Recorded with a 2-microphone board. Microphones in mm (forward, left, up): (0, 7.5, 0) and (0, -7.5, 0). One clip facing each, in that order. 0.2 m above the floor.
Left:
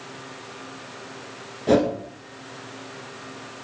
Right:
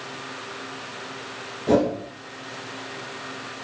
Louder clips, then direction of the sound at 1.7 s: Left 1 dB; 25° left (ahead or behind).